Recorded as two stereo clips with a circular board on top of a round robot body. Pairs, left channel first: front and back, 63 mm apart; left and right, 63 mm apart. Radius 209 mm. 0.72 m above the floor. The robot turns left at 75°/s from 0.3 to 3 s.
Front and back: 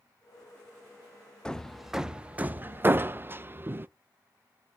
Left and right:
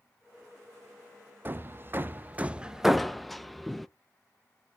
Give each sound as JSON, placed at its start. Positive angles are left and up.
{"t": 1.4, "sound": "hammering", "azimuth_deg": -65, "distance_m": 0.5}